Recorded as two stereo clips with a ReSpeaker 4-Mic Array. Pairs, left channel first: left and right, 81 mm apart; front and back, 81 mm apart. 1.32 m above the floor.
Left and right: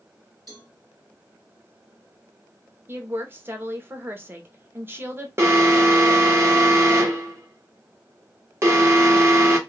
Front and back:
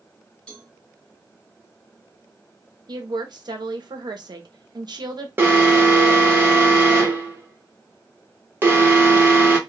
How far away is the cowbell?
About 1.9 m.